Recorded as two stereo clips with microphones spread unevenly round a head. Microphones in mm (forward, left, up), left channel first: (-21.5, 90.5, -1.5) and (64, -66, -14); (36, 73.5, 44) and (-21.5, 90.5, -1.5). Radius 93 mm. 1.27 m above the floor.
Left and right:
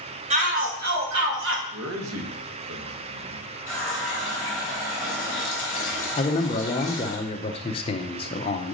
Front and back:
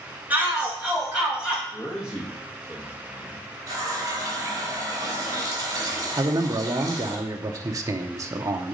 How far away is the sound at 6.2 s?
About 0.7 m.